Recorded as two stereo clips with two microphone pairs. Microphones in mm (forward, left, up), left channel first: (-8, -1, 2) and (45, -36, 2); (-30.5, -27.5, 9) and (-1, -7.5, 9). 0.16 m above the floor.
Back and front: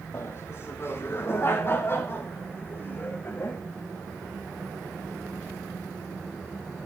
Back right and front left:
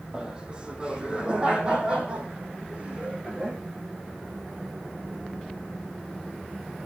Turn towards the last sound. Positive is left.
turn(degrees=90)